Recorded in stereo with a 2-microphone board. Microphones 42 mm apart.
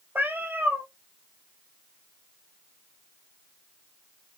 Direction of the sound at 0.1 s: 55° right (ahead or behind).